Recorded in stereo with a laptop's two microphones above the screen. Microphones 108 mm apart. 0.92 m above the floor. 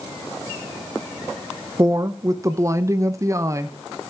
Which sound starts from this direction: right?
A woman speaking, at 1.8 s.